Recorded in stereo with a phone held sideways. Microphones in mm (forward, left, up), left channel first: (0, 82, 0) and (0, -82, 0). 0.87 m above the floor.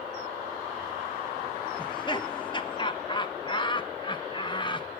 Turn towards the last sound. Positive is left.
turn(degrees=25)  # may be behind; listen again after turning